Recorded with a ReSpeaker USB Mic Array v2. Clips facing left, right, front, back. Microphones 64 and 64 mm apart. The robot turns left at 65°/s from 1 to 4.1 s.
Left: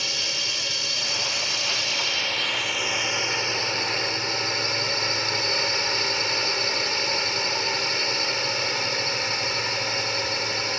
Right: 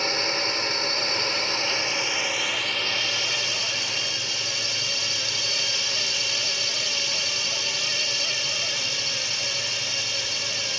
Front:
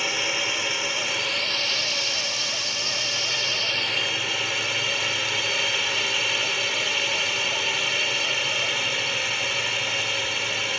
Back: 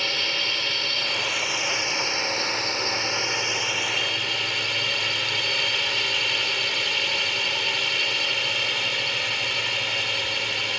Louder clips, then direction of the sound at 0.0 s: Right 5 dB, front 1 dB; 75° right.